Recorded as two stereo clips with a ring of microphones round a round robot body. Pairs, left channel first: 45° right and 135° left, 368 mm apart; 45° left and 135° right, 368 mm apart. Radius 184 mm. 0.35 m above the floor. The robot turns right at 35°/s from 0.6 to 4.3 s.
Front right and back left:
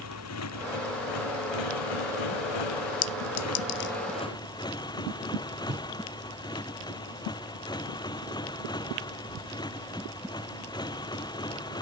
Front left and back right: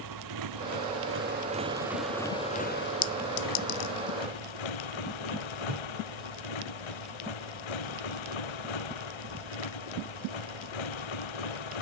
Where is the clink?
20° right; by 3.9 s 10° left.